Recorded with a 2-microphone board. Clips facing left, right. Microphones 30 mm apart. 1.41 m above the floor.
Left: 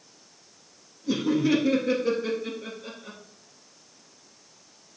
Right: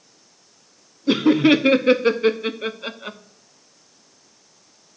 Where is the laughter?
60° right (ahead or behind), 0.5 m.